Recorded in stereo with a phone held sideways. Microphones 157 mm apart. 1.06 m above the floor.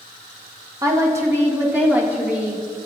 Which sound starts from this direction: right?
A woman speaking, at 0.8 s.